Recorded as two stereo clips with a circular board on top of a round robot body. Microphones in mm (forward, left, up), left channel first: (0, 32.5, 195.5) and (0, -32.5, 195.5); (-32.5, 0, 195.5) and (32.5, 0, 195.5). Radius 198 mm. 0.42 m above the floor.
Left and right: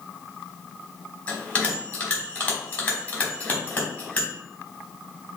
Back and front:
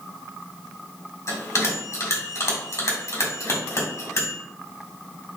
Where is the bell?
155° left, 2 m.